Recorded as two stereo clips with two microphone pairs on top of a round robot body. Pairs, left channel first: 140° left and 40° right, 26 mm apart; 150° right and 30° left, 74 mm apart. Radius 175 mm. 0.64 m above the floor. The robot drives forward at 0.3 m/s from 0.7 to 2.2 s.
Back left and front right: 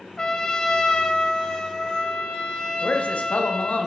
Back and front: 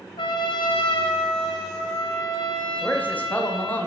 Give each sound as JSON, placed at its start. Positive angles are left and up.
{"t": 0.2, "sound": "a trumpet", "azimuth_deg": -150, "distance_m": 0.6}
{"t": 2.8, "sound": "a man speaking", "azimuth_deg": 140, "distance_m": 1.0}